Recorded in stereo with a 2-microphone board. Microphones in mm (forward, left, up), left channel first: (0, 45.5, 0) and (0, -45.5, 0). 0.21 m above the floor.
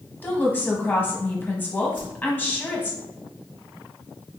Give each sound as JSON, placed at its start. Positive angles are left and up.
{"t": 0.2, "sound": "a woman speaking", "side_deg": 20, "distance_m": 1.2}
{"t": 1.9, "sound": "a whoosh", "side_deg": 65, "distance_m": 2.5}